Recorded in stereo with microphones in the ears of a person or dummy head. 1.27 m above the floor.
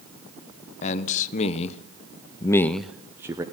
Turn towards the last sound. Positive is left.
turn(degrees=-15)  # may be behind; listen again after turning